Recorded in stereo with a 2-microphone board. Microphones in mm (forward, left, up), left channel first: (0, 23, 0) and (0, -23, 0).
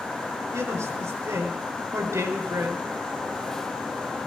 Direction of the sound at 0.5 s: 75° right (ahead or behind).